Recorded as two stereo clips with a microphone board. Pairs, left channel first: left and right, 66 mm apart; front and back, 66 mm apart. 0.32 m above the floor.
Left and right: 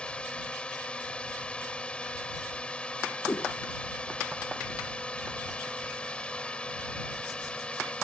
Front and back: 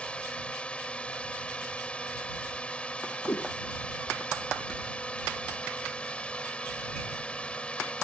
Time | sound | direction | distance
0.0 | a drone | 40° left | ?
3.2 | a whoosh | 40° left | ?